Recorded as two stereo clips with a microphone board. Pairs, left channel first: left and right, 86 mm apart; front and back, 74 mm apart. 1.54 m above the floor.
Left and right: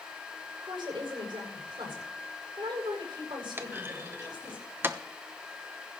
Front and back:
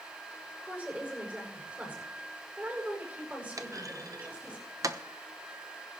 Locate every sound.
0.6 s a woman speaking: 115° right, 8 m
3.6 s a clunk: 150° right, 0.9 m